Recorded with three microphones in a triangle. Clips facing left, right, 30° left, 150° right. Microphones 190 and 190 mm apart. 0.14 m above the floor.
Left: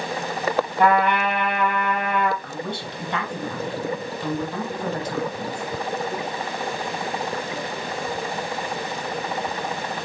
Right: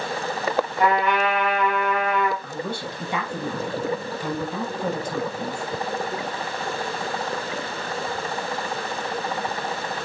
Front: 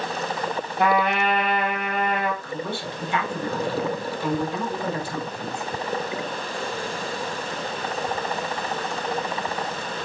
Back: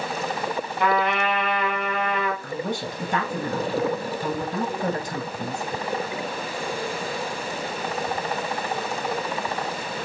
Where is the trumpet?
55° left, 3.5 m.